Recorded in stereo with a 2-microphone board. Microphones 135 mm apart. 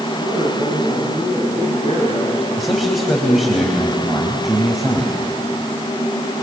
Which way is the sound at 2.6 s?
Centre (ahead or behind).